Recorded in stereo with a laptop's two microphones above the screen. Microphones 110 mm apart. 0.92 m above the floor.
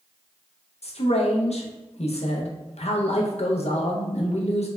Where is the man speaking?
70° left (ahead or behind), 0.7 m.